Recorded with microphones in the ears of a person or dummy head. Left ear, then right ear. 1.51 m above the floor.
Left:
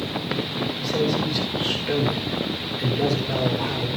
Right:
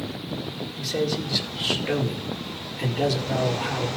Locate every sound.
0.8 s a man speaking: 20° right (ahead or behind), 4.5 m